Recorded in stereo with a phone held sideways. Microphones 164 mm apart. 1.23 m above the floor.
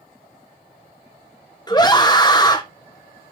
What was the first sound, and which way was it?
A scream, 25° left (ahead or behind).